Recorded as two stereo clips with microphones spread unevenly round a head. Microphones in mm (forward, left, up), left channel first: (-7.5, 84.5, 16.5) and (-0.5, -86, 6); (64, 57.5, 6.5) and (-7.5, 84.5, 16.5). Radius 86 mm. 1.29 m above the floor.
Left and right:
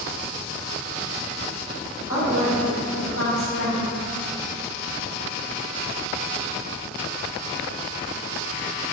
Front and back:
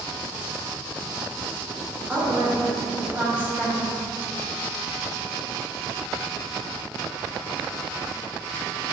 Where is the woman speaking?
85° left, 1.2 m.